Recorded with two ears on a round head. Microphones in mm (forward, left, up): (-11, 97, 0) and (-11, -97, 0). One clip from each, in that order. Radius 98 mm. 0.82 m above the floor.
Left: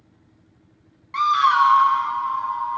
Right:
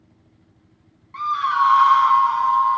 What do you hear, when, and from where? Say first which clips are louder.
1.1 s a scream: left 3 dB; 50° left (ahead or behind), 0.8 m; by 2.8 s 65° right (ahead or behind), 1.3 m